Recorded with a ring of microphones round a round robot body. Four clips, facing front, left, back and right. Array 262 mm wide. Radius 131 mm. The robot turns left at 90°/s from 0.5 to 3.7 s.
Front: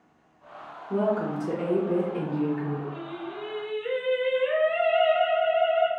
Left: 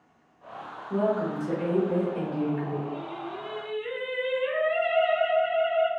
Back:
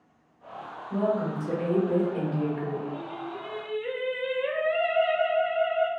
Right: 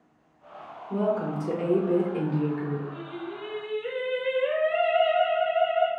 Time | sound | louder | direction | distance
0.9 | a woman speaking | even, front 1 dB | straight ahead | 0.6 m
2.9 | singing | left 1 dB, even | 40° right | 1.0 m